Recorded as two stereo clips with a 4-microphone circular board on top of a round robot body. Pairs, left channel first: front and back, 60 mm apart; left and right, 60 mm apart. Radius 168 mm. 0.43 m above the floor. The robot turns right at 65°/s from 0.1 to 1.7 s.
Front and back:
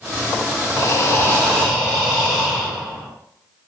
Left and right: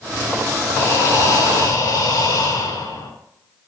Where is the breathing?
20° left, 6 m; by 3.1 s 85° left, 6 m.